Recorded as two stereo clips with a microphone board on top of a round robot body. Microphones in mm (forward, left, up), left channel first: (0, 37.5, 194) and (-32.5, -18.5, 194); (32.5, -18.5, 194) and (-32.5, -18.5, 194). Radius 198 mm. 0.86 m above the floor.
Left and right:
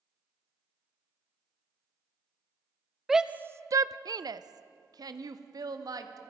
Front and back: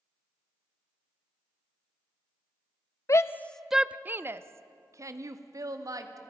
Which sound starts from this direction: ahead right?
A shout, at 3.1 s.